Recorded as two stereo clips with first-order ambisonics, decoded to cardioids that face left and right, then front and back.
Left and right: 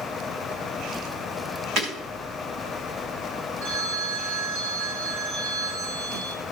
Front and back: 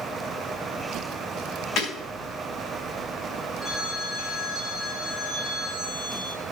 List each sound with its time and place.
1.8 s breaking glass: 45° right, 3.5 m
3.6 s a phone ringing: 80° right, 4 m